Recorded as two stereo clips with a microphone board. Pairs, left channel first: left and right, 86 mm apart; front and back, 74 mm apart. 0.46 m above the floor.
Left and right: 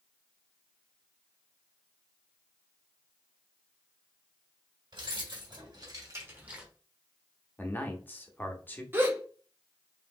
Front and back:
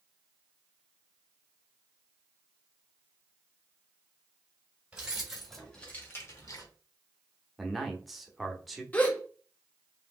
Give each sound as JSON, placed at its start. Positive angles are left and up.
{"t": 4.9, "sound": "keys jangling", "azimuth_deg": -105, "distance_m": 1.6}
{"t": 7.6, "sound": "a man speaking", "azimuth_deg": 95, "distance_m": 0.7}
{"t": 8.9, "sound": "a gasp", "azimuth_deg": -55, "distance_m": 0.7}